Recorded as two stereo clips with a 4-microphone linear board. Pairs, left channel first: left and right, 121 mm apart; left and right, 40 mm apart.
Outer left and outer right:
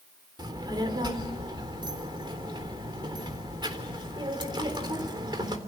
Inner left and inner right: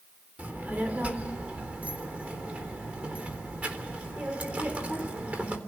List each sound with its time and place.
0.4 s a child speaking: 35° right (ahead or behind), 3.5 m